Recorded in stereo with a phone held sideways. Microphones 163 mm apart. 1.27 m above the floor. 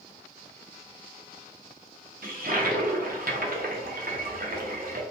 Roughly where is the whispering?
No whispering in this recording.